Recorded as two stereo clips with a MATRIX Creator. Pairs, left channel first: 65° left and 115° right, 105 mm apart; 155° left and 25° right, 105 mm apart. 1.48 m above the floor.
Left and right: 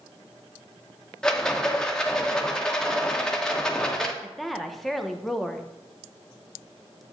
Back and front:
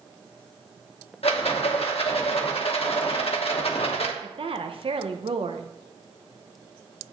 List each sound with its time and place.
1.2 s a rattle: 150° left, 0.9 m
4.2 s a woman speaking: 25° right, 0.7 m